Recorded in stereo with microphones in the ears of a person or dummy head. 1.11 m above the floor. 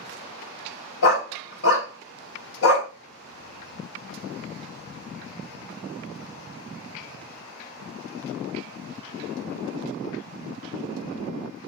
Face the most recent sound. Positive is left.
turn(degrees=60)  # may be behind; listen again after turning